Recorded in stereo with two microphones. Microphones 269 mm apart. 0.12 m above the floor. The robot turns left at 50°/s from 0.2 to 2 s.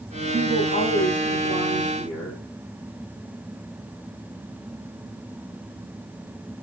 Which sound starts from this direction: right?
A woman speaking, at 0.3 s.